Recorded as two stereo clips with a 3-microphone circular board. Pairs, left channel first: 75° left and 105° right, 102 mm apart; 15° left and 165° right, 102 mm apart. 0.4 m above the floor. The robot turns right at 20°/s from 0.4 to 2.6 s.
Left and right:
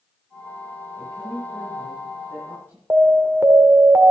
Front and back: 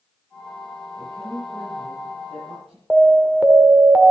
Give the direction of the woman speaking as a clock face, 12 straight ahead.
7 o'clock.